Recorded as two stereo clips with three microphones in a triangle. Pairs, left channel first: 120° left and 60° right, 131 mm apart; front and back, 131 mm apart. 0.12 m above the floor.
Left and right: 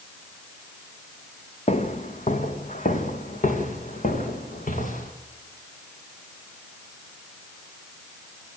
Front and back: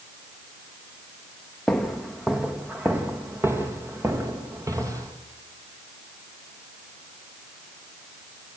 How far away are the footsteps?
About 2 m.